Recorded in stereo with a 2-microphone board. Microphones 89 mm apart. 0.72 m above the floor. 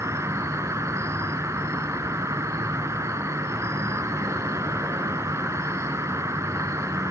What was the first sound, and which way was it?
An insect, 35° right (ahead or behind).